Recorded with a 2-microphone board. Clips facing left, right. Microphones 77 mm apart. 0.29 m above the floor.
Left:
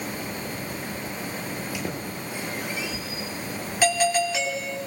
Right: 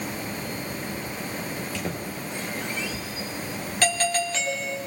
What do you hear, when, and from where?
1.5 s a squeak: 10° left (ahead or behind), 5 m
3.8 s a doorbell: 10° left (ahead or behind), 3 m